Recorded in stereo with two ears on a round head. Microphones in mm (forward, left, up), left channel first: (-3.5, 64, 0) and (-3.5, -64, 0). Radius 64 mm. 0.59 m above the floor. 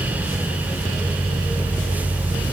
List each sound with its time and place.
Only background noise.